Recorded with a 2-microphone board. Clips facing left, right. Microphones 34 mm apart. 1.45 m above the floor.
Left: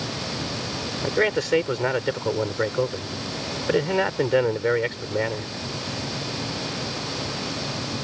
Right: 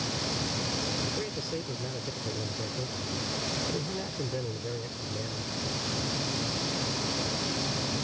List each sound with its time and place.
1.0 s a man speaking: 90° left